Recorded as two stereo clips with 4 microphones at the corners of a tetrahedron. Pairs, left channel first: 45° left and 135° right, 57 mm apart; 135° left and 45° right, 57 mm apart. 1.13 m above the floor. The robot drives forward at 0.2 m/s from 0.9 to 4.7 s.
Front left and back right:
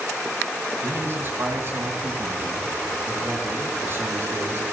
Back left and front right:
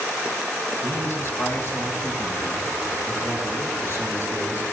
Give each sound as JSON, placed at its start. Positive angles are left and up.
{"t": 0.8, "sound": "a man speaking", "azimuth_deg": 175, "distance_m": 7.5}